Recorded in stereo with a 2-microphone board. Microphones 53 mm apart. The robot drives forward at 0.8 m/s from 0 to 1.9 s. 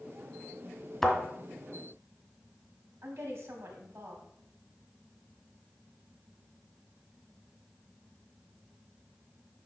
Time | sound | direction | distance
1.0 | a thud | 10° left (ahead or behind) | 1.6 m
3.0 | a woman speaking | 45° right (ahead or behind) | 2.0 m